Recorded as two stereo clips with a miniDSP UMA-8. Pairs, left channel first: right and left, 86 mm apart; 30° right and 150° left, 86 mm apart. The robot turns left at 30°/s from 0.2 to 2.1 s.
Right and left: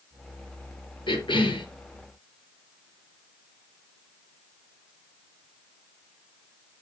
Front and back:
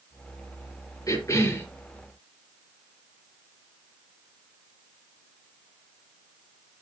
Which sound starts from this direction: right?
A cough, at 1.1 s.